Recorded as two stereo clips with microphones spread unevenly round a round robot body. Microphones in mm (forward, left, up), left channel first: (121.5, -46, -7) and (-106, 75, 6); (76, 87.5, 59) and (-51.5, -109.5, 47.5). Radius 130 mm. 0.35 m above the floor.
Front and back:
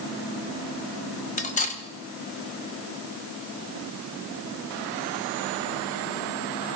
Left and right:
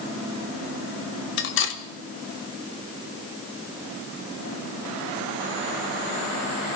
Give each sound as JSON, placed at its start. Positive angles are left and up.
{"t": 1.4, "sound": "cutlery clinking", "azimuth_deg": 30, "distance_m": 1.3}